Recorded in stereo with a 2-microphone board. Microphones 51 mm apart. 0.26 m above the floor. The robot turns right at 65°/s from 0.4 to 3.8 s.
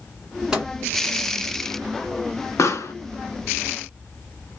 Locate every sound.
0.5 s a microwave: 10° right (ahead or behind), 1.8 m; by 0.7 s centre (ahead or behind), 1.8 m
2.6 s a pop: 70° left (ahead or behind), 0.8 m; by 2.9 s 80° left, 0.8 m